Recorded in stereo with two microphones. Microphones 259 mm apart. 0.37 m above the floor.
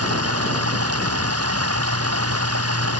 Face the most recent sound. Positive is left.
turn(degrees=-65)  # may be behind; listen again after turning